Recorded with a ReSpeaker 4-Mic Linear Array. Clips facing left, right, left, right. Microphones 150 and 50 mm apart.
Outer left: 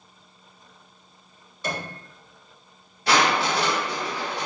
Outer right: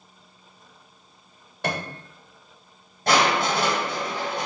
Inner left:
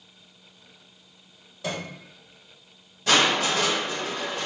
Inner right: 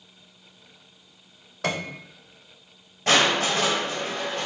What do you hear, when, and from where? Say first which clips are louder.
1.6 s a piano: outer right 2 dB, inner right 4 dB; 60° right (ahead or behind), 0.6 m
3.1 s crushing: outer right 1 dB, inner right 1 dB; 45° right (ahead or behind), 1.9 m